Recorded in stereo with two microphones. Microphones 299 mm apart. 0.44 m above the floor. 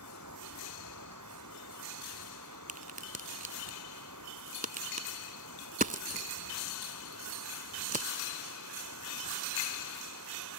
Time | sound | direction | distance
0.0 | running water | 75° right (ahead or behind) | ?
2.7 | a crack | 30° right (ahead or behind) | ?